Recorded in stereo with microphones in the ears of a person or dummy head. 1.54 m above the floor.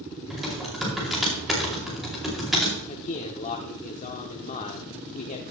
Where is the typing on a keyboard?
Centre (ahead or behind), 2.5 m.